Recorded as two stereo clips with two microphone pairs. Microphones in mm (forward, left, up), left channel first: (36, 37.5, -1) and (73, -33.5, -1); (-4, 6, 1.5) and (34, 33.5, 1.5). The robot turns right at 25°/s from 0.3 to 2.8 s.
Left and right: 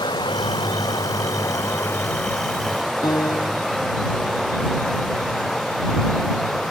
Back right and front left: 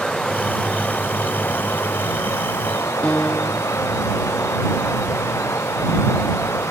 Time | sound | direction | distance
0.0 | running water | 140° left | ?
3.0 | a piano | 150° left | ?